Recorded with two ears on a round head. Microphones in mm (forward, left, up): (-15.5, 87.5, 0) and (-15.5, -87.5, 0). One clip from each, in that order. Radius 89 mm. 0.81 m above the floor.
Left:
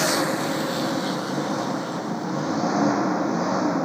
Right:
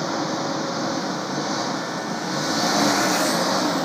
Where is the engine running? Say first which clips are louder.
Left 2 dB; 80° right.